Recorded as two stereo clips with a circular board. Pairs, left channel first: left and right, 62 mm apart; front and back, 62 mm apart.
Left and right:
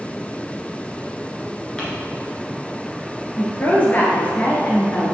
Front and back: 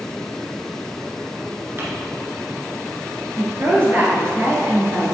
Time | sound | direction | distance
1.8 | crumpling | 155° left | 2 m
3.4 | a woman speaking | 140° left | 2 m